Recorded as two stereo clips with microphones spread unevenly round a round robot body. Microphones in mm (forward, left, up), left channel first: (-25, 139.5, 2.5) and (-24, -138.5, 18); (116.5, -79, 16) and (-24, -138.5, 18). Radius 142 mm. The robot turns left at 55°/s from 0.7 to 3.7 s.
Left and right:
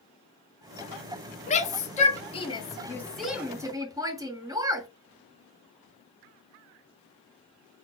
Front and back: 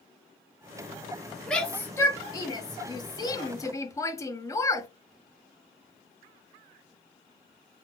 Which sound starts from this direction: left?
A shout, at 1.5 s.